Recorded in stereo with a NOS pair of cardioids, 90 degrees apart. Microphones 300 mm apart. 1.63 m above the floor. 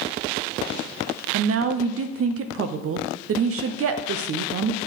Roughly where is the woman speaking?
Ahead right.